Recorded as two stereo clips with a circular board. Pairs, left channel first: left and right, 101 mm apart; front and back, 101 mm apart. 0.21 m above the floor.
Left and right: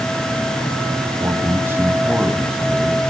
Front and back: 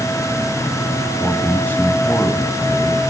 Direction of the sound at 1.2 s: 85° right.